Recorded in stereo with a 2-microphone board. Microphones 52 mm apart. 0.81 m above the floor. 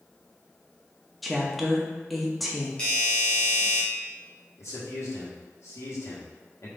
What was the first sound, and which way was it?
A woman speaking, centre (ahead or behind).